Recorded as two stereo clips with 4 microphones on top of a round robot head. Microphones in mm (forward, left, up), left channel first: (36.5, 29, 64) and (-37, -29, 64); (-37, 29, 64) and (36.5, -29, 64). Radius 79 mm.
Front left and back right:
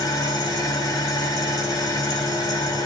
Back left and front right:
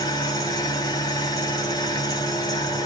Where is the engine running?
90° left, 2.5 m.